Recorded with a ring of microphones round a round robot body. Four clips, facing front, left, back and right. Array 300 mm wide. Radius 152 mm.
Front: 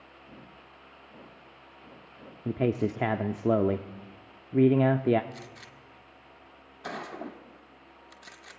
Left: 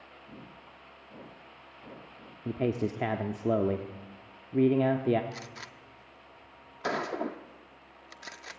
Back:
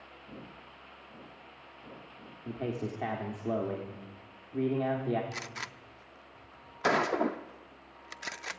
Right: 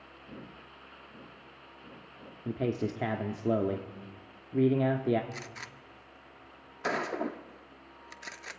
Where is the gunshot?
Straight behind, 0.6 m.